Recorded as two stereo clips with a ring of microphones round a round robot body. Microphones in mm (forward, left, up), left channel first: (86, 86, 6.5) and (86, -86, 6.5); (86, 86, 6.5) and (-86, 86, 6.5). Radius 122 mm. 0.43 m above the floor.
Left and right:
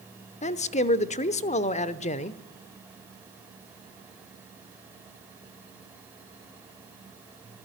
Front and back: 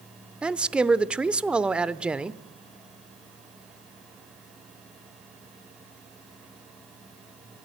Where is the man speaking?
100° left, 0.9 m.